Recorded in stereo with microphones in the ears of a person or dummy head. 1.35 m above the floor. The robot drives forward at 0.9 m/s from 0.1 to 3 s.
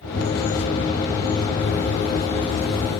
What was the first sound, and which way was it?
Only background noise.